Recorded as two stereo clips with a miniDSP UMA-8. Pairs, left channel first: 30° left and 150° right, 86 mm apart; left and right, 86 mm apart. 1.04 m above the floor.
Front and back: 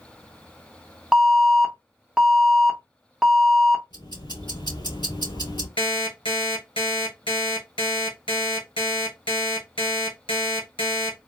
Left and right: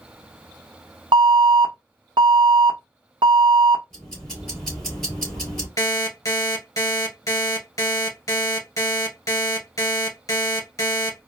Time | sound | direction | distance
1.1 | an alarm | 65° right | 1.0 m
3.9 | ticking | 5° left | 2.5 m
5.8 | an alarm clock | 40° left | 2 m